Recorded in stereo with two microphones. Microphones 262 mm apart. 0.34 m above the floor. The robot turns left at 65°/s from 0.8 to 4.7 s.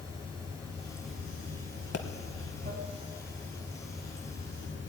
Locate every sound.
0.0 s running water: 15° right, 1.9 m; by 4.9 s 90° left, 1.9 m
1.9 s a pop: 60° left (ahead or behind), 0.8 m; by 2.0 s 70° left (ahead or behind), 0.8 m